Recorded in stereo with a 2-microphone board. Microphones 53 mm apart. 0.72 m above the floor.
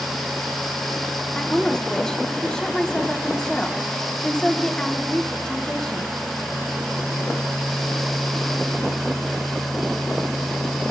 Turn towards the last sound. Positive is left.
turn(degrees=15)  # may be behind; listen again after turning